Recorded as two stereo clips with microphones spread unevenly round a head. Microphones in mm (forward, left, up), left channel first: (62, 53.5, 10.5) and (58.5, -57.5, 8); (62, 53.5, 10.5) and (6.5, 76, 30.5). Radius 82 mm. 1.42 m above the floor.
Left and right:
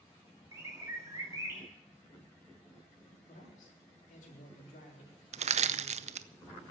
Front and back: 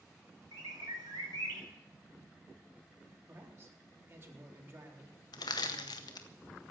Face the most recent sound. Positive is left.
turn(degrees=-75)